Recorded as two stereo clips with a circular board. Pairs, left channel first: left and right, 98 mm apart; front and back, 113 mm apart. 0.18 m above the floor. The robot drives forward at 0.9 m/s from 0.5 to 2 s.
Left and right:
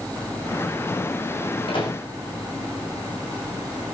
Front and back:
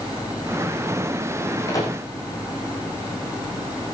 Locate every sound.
1.7 s a microwave: 60° left, 7 m